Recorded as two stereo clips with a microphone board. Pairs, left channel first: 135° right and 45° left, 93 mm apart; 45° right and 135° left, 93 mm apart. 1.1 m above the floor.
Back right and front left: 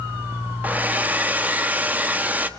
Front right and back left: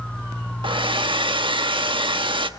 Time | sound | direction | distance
0.6 | a hair dryer | 115° left | 1.2 m